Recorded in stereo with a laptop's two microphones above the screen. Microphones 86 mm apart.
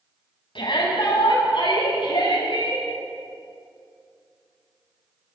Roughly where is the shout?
Left.